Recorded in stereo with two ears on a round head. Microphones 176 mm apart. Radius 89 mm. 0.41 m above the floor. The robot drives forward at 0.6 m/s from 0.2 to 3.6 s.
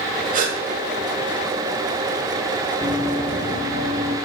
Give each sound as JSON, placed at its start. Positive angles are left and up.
{"t": 0.3, "sound": "a gasp", "side_deg": -40, "distance_m": 0.9}
{"t": 2.8, "sound": "running footsteps", "side_deg": -20, "distance_m": 1.3}